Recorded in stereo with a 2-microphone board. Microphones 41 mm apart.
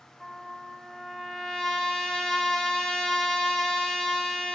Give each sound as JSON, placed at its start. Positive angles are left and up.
{"t": 0.2, "sound": "a trumpet", "side_deg": 15, "distance_m": 0.7}